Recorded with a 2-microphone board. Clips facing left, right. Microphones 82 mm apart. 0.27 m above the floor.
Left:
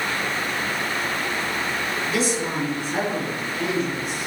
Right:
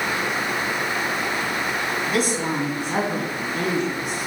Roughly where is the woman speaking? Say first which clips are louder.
Right 1 dB; right.